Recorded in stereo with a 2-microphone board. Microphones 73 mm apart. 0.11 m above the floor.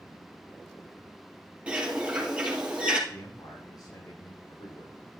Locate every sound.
1.7 s a bird: 15° right (ahead or behind), 3 m
3.1 s a man speaking: 60° left (ahead or behind), 4.5 m